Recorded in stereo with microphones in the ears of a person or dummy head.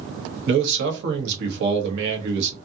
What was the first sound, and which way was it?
A man speaking, 65° right (ahead or behind).